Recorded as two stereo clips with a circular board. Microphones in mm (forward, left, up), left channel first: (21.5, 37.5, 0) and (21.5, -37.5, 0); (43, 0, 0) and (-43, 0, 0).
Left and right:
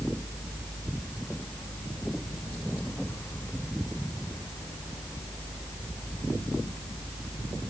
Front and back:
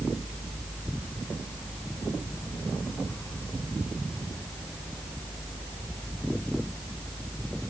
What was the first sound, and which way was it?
Only background noise.